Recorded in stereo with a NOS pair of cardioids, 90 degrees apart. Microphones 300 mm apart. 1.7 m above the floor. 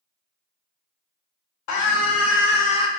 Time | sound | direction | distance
1.7 | a scream | 70° left | 1.0 m